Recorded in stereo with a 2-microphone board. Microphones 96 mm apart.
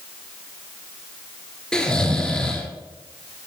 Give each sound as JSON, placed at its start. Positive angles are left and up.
{"t": 1.7, "sound": "snoring", "side_deg": 5, "distance_m": 1.5}